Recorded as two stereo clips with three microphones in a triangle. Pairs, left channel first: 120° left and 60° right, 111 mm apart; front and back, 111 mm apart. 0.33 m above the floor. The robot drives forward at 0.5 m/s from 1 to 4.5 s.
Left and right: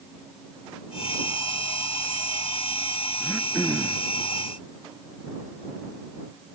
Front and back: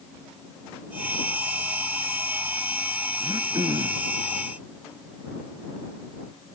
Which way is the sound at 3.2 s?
140° right.